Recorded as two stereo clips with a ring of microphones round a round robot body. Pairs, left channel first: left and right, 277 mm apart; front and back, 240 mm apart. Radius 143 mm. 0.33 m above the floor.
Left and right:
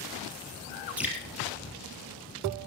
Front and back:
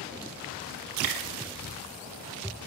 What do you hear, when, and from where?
1.0 s dripping: 175° right, 3 m